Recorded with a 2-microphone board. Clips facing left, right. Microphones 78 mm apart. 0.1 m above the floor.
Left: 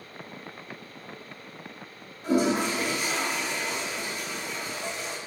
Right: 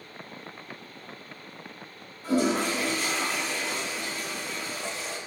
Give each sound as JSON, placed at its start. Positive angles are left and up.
{"t": 2.2, "sound": "a toilet flushing", "side_deg": 20, "distance_m": 0.8}